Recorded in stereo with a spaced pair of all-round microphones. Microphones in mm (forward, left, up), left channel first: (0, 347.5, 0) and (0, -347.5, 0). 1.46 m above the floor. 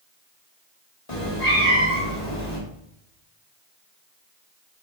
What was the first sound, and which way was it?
A cat meowing, 50° left (ahead or behind).